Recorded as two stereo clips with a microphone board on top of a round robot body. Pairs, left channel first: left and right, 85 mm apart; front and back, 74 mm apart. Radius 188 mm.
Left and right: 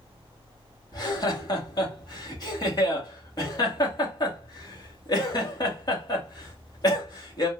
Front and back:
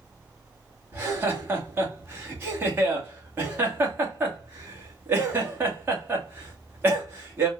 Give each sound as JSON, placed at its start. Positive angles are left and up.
{"t": 0.9, "sound": "laughter", "azimuth_deg": 120, "distance_m": 2.5}